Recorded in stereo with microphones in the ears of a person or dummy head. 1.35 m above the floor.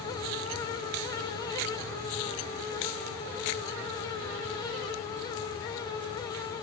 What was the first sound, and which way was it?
Only background noise.